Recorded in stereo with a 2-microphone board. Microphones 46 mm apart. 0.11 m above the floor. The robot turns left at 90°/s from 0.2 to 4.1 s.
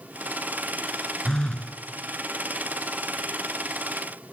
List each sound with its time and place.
1.2 s a phone buzzing: 10° left (ahead or behind), 1.4 m; by 1.8 s 25° left (ahead or behind), 1.4 m